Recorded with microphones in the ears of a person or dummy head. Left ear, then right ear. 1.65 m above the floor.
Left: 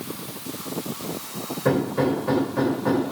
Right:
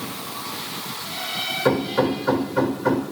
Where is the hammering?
35° right (ahead or behind), 3 m.